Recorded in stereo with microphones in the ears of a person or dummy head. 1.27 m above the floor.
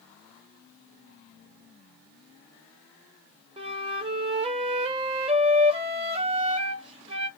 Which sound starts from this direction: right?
A flute, at 3.6 s.